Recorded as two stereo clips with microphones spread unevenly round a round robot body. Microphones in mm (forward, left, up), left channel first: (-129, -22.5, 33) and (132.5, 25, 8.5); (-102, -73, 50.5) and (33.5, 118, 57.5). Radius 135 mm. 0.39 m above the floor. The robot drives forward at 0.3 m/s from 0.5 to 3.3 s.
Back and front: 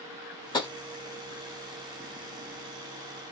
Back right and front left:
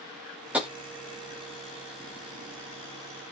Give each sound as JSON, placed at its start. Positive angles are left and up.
{"t": 0.5, "sound": "tapping", "azimuth_deg": 130, "distance_m": 1.1}